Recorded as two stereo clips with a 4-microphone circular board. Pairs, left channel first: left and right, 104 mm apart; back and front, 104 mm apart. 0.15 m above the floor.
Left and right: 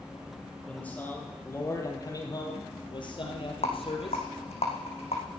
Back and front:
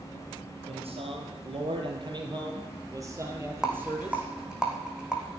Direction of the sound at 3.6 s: 85° left.